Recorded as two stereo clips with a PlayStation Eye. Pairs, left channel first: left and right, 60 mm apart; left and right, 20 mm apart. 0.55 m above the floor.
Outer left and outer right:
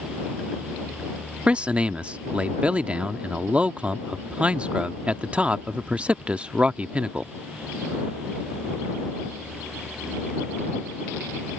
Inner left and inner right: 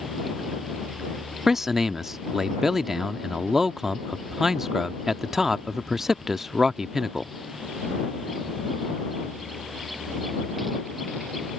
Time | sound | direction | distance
1.5 | a man speaking | 20° right (ahead or behind) | ?